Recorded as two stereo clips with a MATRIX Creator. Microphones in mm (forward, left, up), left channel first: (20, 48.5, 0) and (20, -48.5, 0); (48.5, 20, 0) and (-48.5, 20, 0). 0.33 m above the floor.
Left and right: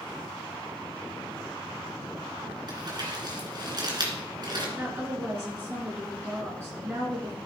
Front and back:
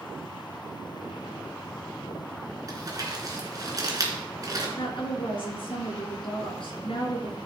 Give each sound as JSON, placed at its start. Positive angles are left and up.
{"t": 2.7, "sound": "crumpling", "azimuth_deg": -130, "distance_m": 3.0}
{"t": 4.8, "sound": "a woman speaking", "azimuth_deg": -25, "distance_m": 4.0}